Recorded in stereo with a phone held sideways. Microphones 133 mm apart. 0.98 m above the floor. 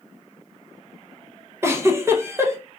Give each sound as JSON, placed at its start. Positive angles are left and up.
{"t": 1.6, "sound": "a giggle", "side_deg": -20, "distance_m": 0.5}